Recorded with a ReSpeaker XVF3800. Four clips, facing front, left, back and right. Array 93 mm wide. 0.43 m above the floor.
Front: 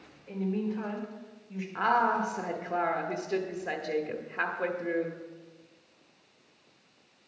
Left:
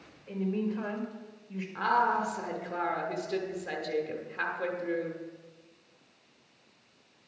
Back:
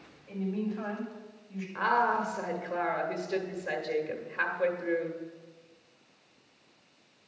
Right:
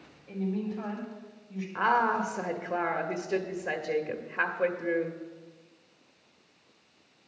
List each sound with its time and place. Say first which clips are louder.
0.3 s a woman speaking: left 1 dB, front 2 dB; 65° left, 2.0 m
1.8 s a woman speaking: right 1 dB, front 1 dB; 70° right, 1.1 m